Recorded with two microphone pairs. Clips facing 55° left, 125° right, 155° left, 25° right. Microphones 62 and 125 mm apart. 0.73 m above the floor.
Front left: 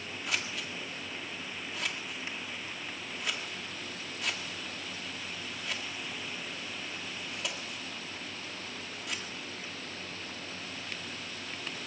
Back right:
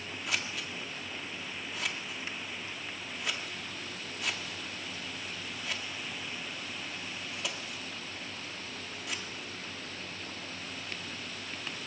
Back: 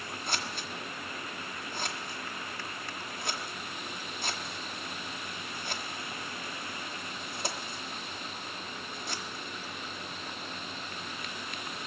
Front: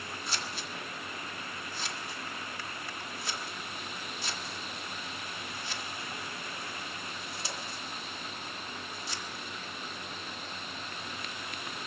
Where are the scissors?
145° left, 1.6 m.